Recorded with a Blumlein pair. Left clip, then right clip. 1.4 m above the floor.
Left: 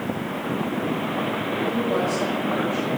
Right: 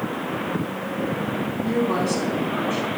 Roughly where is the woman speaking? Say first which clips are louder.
Right 2 dB; ahead right.